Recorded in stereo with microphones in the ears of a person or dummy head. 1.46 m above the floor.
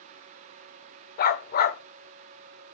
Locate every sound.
1.2 s a dog barking: 50° left (ahead or behind), 2.5 m